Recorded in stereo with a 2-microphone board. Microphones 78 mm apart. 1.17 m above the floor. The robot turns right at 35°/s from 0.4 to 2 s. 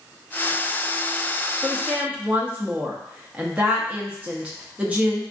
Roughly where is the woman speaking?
Centre.